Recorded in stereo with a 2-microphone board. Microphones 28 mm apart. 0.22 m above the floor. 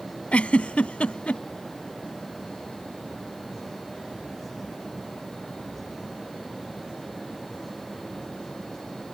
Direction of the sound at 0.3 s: 50° left (ahead or behind).